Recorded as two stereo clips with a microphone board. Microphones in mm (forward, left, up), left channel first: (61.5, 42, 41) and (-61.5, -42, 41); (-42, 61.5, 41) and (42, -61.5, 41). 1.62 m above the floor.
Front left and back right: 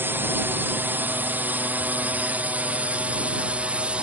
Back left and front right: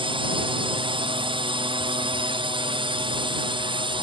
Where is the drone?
80° right; by 4.0 s 70° right.